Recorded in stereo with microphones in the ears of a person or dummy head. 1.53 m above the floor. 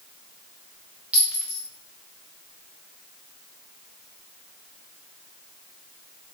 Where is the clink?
5° right (ahead or behind), 0.9 m.